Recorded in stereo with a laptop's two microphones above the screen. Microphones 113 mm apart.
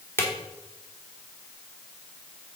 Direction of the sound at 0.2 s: 20° left (ahead or behind).